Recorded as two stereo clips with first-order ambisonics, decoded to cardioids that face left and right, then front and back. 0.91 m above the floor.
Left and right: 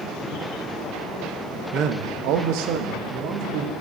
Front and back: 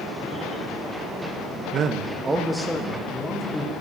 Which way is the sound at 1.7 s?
145° right.